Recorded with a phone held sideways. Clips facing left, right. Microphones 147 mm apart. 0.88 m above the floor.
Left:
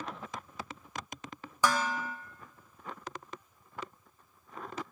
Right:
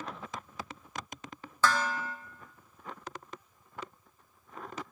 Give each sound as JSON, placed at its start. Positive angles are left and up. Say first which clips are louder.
{"t": 1.6, "sound": "dishes clattering", "louder": "even", "side_deg": 15, "distance_m": 0.7}